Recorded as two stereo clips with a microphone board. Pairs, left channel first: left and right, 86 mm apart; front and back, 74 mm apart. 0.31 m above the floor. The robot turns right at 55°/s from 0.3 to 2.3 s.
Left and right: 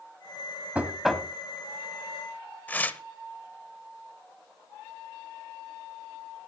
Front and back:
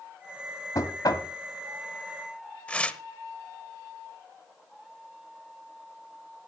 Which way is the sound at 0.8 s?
20° right.